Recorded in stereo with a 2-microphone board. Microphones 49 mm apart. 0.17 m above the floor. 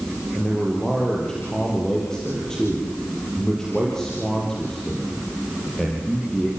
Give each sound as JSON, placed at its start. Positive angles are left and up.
{"t": 0.3, "sound": "a man speaking", "side_deg": 10, "distance_m": 5.0}